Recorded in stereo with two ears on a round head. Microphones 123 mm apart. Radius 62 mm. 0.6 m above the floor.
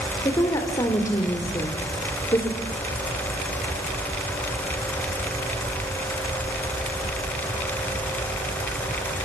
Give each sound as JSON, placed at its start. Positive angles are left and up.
{"t": 0.2, "sound": "a woman speaking", "side_deg": 25, "distance_m": 2.5}